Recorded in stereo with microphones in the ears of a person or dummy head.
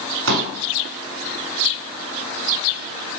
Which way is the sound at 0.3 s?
75° right (ahead or behind).